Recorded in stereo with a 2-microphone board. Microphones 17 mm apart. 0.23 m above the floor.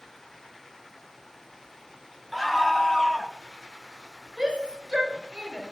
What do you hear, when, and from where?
2.3 s a scream: 5° right (ahead or behind), 1.4 m; by 3.3 s 25° left (ahead or behind), 1.2 m
4.4 s a shout: 75° right (ahead or behind), 5.5 m